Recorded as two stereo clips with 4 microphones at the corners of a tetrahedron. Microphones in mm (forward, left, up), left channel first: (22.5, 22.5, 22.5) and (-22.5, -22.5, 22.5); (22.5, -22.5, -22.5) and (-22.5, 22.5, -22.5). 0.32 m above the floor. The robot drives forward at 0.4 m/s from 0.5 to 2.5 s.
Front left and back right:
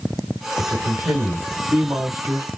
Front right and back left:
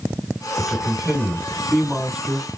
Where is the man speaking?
140° right, 1.3 m; by 2.5 s 155° right, 1.8 m.